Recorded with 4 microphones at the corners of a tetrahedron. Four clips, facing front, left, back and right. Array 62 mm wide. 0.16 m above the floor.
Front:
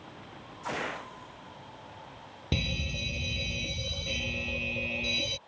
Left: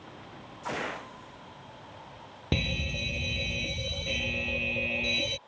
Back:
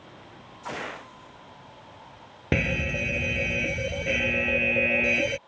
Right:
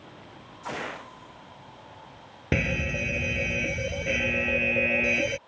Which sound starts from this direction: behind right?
A fire alarm, at 2.5 s.